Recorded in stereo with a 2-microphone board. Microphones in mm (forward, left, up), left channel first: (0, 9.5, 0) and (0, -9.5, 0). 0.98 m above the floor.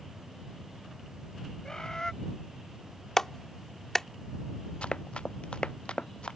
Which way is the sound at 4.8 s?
70° left (ahead or behind).